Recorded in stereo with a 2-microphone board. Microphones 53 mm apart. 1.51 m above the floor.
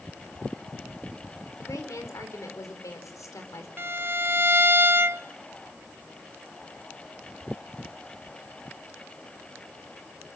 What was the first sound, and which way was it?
A woman speaking, 85° left.